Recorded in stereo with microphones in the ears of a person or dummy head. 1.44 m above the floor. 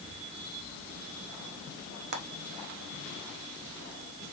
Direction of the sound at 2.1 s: 55° right (ahead or behind).